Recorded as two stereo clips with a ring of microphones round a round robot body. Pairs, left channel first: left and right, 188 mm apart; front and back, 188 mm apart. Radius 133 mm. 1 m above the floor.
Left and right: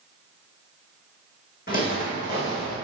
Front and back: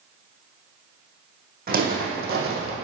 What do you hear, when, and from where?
1.7 s footsteps: 145° left, 2.5 m; by 2.7 s 155° left, 2.0 m